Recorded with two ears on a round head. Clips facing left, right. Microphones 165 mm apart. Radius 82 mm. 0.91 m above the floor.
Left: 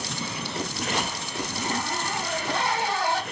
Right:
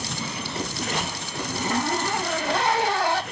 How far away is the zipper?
About 0.7 m.